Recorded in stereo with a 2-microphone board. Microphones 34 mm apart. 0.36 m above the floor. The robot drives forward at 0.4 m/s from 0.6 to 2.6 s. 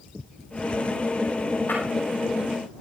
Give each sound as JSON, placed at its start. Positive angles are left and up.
{"t": 1.7, "sound": "breaking glass", "side_deg": 70, "distance_m": 10.0}